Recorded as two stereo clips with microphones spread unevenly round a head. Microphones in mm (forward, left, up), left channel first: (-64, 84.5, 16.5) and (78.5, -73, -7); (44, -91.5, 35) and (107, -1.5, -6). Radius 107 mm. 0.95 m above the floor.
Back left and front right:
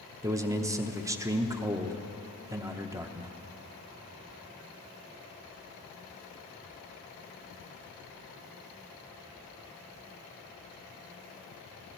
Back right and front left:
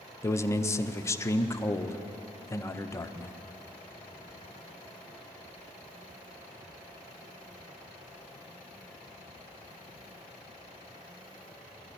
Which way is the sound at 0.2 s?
45° right.